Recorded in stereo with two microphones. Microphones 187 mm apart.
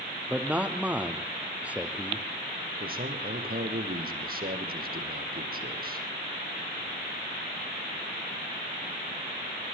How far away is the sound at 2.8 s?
About 4.5 m.